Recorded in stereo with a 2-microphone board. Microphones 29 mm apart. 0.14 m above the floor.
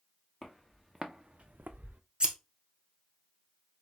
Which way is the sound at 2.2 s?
30° right (ahead or behind).